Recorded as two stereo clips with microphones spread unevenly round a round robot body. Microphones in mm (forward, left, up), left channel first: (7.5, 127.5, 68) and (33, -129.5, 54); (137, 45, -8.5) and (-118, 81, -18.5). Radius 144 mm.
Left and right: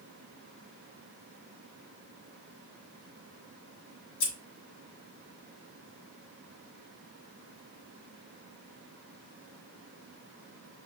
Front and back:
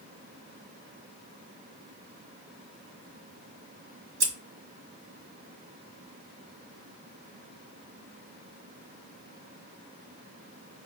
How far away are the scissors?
About 1.4 m.